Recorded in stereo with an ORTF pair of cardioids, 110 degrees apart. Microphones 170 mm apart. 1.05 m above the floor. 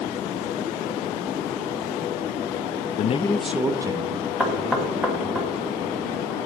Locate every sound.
3.0 s a man speaking: 50° left, 0.5 m; by 5.4 s 35° right, 3 m
4.4 s knocking: 5° right, 2.5 m